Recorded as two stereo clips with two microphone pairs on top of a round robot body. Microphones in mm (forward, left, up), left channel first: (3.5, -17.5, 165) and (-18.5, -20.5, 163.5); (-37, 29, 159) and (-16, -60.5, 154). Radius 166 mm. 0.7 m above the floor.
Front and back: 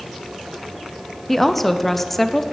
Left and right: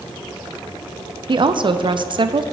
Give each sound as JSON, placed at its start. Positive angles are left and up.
{"t": 1.3, "sound": "a woman speaking", "azimuth_deg": -80, "distance_m": 0.7}